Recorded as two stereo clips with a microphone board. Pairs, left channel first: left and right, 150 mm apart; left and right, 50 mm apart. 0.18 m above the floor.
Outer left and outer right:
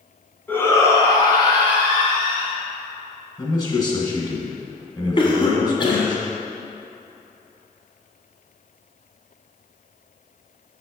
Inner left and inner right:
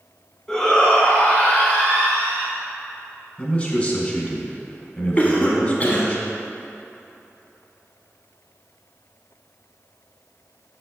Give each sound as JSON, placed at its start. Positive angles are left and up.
{"t": 0.5, "sound": "a shout", "side_deg": 10, "distance_m": 1.3}
{"t": 3.4, "sound": "a man speaking", "side_deg": 30, "distance_m": 1.6}
{"t": 5.2, "sound": "a cough", "side_deg": 35, "distance_m": 1.4}